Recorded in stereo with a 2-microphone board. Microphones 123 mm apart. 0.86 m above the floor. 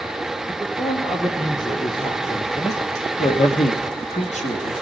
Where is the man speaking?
30° left (ahead or behind), 2 m; by 4.7 s 65° left (ahead or behind), 1.5 m.